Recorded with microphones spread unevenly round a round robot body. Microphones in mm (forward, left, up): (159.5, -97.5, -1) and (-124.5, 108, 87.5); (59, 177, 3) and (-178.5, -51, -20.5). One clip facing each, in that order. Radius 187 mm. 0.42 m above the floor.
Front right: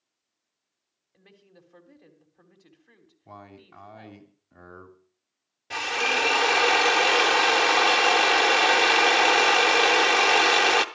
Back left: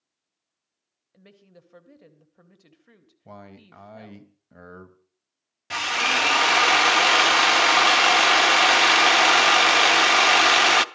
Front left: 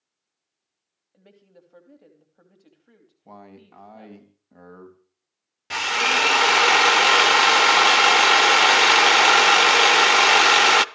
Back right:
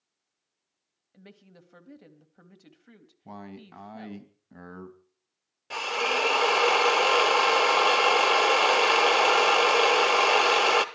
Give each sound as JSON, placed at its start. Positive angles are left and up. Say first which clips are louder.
{"t": 1.1, "sound": "a woman speaking", "louder": "back left 3 dB, back right 1 dB", "azimuth_deg": -175, "distance_m": 3.0}
{"t": 3.2, "sound": "a man speaking", "louder": "back left 2 dB, back right 2 dB", "azimuth_deg": 170, "distance_m": 3.0}
{"t": 5.7, "sound": "a drill", "louder": "front right 2 dB, front left 1 dB", "azimuth_deg": 90, "distance_m": 0.9}